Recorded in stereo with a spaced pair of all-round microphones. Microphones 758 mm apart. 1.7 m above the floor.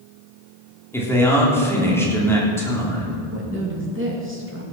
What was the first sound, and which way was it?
A man speaking, 5° left (ahead or behind).